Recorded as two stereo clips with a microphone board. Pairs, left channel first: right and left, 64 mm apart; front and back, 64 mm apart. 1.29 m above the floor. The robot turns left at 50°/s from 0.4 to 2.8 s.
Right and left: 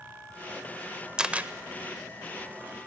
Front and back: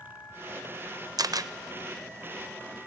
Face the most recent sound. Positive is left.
turn(degrees=90)